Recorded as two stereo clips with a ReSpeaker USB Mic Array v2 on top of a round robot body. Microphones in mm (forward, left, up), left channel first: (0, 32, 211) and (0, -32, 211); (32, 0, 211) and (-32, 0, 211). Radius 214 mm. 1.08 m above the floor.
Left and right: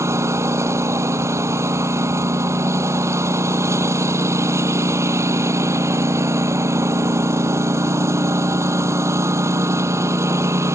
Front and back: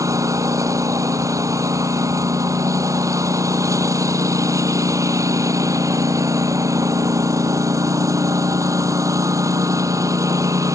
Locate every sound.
0.0 s a lawn mower: 140° right